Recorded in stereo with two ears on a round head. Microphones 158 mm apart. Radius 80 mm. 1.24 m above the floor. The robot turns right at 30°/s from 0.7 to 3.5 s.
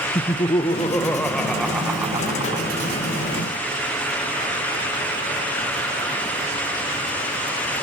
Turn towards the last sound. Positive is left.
turn(degrees=-120)